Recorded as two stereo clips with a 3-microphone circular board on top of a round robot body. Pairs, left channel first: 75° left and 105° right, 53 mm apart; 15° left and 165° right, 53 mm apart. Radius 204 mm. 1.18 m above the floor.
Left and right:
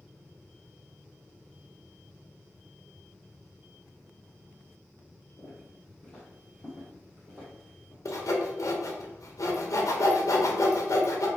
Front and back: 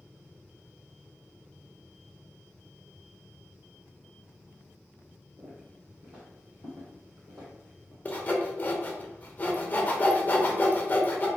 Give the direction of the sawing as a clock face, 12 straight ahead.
10 o'clock.